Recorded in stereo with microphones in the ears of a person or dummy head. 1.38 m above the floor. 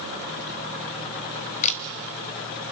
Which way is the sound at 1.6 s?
30° left (ahead or behind).